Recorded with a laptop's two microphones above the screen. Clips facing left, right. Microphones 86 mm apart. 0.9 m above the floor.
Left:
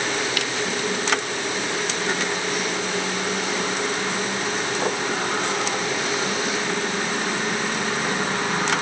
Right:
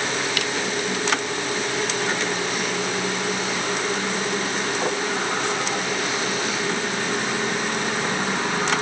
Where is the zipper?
No zipper in this recording.